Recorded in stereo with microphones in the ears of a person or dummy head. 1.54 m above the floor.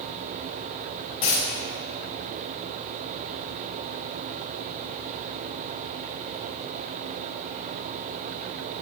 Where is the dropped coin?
25° left (ahead or behind), 2 m.